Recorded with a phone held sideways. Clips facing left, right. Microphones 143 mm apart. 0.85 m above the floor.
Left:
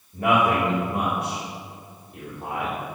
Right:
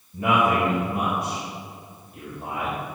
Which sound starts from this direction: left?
A man speaking, at 0.1 s.